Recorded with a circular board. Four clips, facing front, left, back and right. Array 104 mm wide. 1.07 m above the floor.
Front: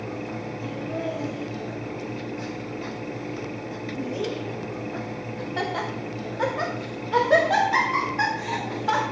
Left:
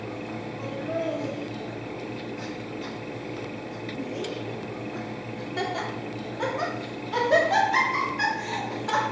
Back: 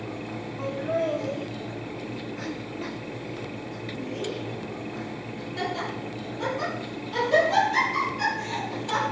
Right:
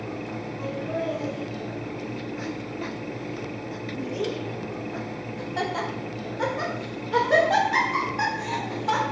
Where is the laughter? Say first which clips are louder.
Even, back 6 dB; straight behind, 1.4 m; by 9.0 s 25° right, 4 m.